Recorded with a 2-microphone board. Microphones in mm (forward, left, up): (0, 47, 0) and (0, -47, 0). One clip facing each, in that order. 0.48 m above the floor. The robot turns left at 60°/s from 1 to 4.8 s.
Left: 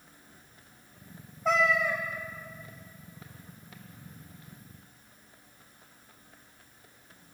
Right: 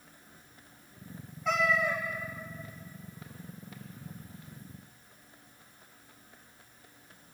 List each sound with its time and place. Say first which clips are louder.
1.4 s a cat meowing: left 2 dB; 45° left, 3.5 m; by 2.0 s 10° left, 3.5 m